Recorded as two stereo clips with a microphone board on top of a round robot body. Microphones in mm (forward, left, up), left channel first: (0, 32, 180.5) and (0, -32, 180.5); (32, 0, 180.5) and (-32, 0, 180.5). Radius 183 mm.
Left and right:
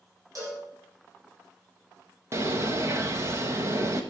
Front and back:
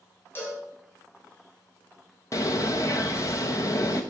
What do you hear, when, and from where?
0.3 s a cowbell: 55° right, 7.5 m
2.3 s a bird: 40° right, 0.7 m